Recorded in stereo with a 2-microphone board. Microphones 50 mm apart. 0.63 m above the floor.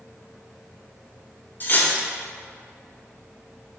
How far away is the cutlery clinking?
About 1.0 m.